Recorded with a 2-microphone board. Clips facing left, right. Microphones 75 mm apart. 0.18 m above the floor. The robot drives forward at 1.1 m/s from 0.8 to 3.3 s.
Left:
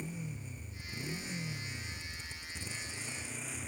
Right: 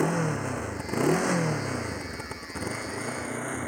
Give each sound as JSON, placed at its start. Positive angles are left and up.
{"t": 0.0, "sound": "a motorcycle", "side_deg": -85}